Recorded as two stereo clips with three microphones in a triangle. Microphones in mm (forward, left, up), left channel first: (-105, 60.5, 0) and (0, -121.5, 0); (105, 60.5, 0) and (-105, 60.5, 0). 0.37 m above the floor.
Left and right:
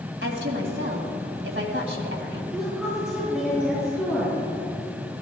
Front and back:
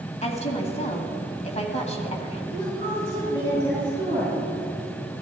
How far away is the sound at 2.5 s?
About 5 m.